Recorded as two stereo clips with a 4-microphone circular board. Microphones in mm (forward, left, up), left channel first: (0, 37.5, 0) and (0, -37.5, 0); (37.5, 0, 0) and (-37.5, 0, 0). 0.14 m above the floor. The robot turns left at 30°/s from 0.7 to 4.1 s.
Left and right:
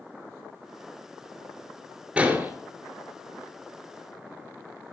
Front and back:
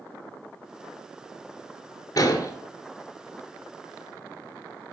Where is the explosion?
20° right, 1.2 m; by 2.5 s 30° right, 1.2 m.